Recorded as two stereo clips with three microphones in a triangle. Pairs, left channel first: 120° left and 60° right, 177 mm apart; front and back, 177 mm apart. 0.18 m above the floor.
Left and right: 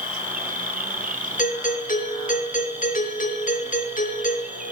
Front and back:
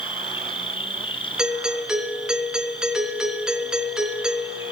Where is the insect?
50° right, 2.5 m.